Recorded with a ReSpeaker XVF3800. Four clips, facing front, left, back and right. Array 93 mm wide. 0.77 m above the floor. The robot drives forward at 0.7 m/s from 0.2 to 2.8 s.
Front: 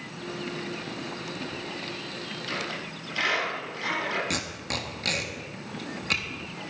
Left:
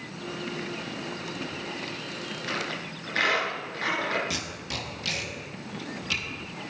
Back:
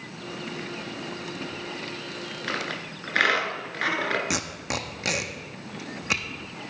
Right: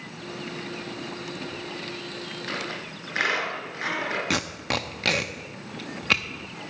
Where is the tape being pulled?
110° right, 0.7 m.